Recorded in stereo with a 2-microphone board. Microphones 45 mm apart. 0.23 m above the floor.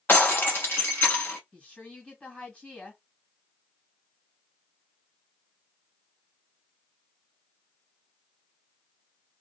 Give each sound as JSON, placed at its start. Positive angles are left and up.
{"t": 0.1, "sound": "breaking glass", "side_deg": 45, "distance_m": 1.3}
{"t": 1.5, "sound": "a woman speaking", "side_deg": 30, "distance_m": 1.7}